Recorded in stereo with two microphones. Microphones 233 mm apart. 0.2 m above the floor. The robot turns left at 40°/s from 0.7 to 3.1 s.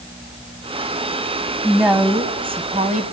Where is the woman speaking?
Straight ahead, 1.3 m; by 3.0 s 60° right, 1.3 m.